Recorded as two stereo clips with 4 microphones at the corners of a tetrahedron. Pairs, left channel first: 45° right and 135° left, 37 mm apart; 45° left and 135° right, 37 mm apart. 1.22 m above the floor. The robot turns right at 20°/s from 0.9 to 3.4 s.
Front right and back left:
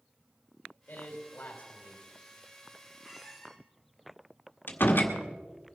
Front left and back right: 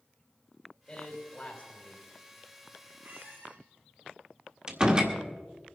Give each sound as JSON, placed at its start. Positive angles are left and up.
{"t": 0.9, "sound": "a man speaking", "azimuth_deg": -25, "distance_m": 2.5}
{"t": 3.0, "sound": "a squeak", "azimuth_deg": -145, "distance_m": 2.5}
{"t": 4.7, "sound": "a door slam", "azimuth_deg": -70, "distance_m": 1.6}